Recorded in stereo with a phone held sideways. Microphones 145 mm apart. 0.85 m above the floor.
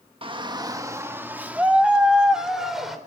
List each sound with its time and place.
0.2 s a shout: 35° right (ahead or behind), 1.2 m; by 3.0 s centre (ahead or behind), 4 m